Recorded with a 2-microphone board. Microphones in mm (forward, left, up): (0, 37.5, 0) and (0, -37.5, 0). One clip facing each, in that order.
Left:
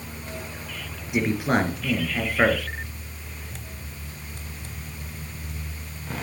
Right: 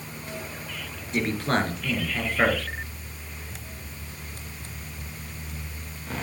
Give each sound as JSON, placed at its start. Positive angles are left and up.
{"t": 1.1, "sound": "a man speaking", "side_deg": 10, "distance_m": 2.5}